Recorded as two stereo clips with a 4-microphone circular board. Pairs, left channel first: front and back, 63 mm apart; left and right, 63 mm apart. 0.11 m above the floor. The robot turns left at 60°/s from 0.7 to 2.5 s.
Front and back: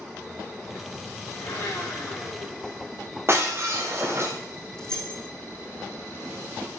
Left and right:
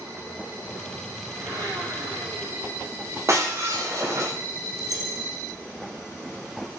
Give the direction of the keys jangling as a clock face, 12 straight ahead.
3 o'clock.